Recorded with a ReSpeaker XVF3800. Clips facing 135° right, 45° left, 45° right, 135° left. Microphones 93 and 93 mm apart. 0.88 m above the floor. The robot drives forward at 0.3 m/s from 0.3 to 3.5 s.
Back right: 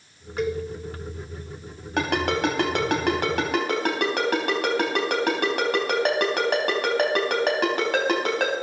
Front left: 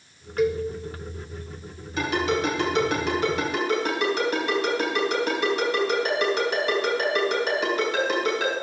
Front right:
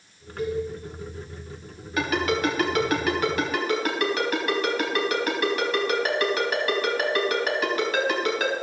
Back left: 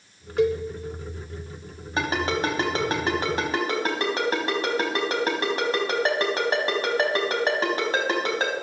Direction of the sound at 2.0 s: 165° right.